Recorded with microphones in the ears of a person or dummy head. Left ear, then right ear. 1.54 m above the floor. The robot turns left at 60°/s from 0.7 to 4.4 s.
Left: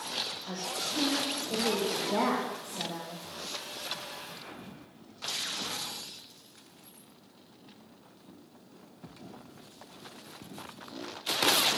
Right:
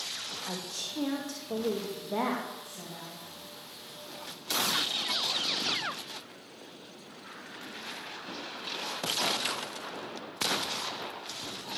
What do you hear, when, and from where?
0.5 s a woman speaking: 85° right, 2 m; by 3.3 s 120° left, 2 m